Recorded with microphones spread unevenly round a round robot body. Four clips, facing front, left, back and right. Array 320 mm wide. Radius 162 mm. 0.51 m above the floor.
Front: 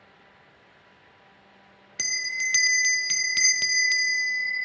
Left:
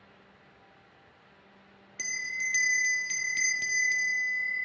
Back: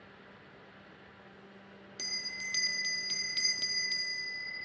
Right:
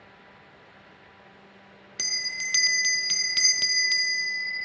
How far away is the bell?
About 0.5 m.